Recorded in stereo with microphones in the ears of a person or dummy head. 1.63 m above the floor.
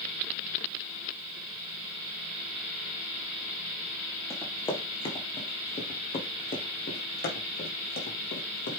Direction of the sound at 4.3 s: 15° left (ahead or behind).